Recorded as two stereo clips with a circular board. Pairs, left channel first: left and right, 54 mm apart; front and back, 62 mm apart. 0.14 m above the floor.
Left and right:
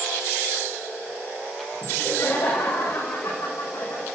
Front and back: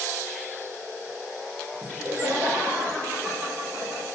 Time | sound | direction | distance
1.8 | laughter | 110° left | 6.5 m